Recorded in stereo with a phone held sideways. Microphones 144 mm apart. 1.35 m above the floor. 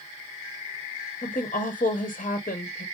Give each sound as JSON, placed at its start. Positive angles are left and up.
{"t": 1.2, "sound": "a woman speaking", "side_deg": 75, "distance_m": 0.7}